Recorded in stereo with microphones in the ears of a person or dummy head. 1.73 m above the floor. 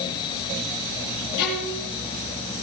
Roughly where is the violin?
Left.